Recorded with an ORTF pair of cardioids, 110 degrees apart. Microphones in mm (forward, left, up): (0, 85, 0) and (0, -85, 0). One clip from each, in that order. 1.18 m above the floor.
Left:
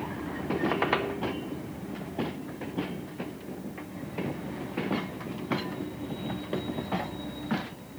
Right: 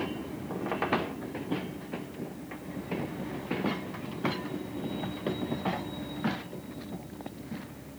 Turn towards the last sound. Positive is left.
turn(degrees=20)